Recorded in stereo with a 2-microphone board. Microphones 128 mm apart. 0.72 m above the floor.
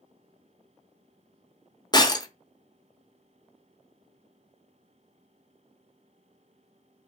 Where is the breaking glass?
30° left (ahead or behind), 0.7 m.